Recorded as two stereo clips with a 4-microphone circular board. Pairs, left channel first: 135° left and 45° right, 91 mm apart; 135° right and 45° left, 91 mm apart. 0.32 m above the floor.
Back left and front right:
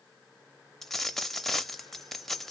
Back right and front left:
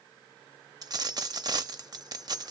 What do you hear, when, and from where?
0.8 s a dropped coin: 50° left, 0.6 m